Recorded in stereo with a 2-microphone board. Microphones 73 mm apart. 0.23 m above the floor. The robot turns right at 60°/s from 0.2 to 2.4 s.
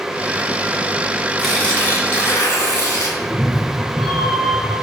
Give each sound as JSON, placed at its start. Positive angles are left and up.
{"t": 1.4, "sound": "tearing paper", "azimuth_deg": 0, "distance_m": 2.5}
{"t": 3.2, "sound": "a cat meowing", "side_deg": 0, "distance_m": 1.8}